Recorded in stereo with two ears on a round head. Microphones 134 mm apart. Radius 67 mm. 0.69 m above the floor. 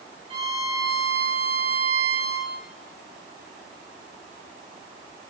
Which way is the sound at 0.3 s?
40° right (ahead or behind).